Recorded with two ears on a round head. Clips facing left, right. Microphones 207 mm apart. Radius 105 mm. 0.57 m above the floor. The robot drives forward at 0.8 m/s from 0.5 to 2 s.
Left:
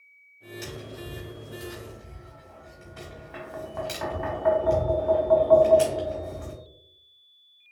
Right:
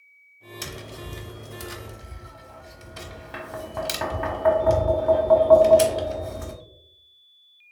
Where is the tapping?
65° right (ahead or behind), 1.1 m; by 6.6 s 55° right (ahead or behind), 1.1 m.